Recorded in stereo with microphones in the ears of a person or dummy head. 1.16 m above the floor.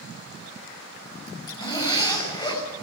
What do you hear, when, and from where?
1.3 s a zipper: 30° left (ahead or behind), 6 m